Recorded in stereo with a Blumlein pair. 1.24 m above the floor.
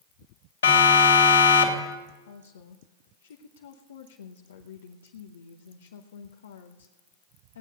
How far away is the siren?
About 2.5 m.